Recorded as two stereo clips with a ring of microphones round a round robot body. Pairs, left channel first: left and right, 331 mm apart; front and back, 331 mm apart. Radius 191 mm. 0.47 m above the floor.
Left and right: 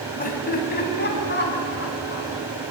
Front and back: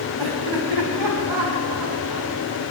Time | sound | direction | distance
0.2 | laughter | 155° left | 4.5 m